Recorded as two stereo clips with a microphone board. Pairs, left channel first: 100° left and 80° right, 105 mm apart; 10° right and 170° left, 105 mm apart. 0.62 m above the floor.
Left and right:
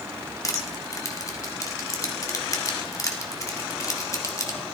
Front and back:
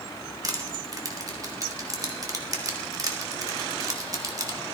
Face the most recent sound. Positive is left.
turn(degrees=135)